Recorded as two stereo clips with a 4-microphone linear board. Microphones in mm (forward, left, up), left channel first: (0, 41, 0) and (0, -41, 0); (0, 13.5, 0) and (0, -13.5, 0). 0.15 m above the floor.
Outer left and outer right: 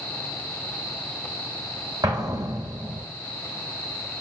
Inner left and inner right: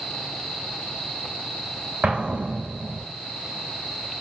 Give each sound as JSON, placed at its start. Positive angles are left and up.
{"t": 2.0, "sound": "an explosion", "side_deg": -50, "distance_m": 3.0}